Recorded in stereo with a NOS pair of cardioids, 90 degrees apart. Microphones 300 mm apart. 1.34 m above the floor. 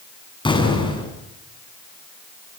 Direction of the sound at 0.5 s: 15° left.